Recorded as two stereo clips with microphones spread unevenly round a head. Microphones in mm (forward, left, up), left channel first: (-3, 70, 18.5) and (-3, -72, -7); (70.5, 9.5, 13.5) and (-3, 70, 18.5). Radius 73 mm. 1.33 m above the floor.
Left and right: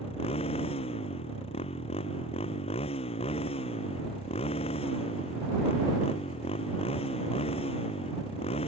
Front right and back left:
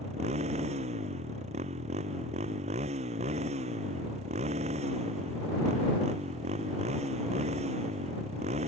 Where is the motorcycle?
140° left.